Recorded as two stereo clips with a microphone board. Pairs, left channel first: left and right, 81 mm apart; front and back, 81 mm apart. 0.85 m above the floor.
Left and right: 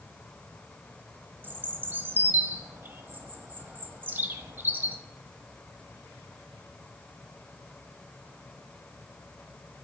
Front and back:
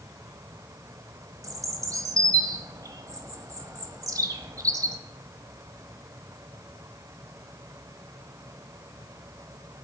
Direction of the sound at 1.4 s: 150° right.